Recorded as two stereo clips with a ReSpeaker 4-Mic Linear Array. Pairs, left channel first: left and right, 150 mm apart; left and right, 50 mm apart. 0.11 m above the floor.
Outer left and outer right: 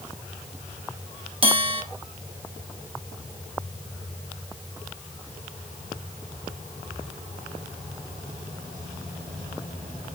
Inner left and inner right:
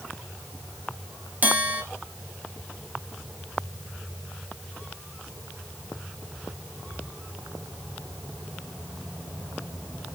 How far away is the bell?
About 1.9 m.